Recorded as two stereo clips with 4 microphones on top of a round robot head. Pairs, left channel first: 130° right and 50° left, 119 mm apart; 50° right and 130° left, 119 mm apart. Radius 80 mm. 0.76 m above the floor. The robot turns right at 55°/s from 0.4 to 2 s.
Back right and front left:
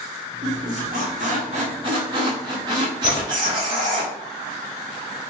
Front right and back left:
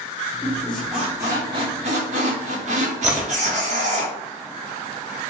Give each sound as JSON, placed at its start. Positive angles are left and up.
{"t": 0.4, "sound": "a squeak", "azimuth_deg": 20, "distance_m": 0.9}
{"t": 3.0, "sound": "a splash", "azimuth_deg": -150, "distance_m": 0.5}